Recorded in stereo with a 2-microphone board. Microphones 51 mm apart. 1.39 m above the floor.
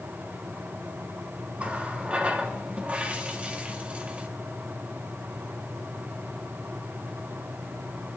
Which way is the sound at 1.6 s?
25° right (ahead or behind).